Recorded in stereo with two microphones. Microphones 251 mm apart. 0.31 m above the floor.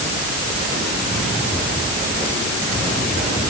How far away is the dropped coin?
I don't hear a dropped coin.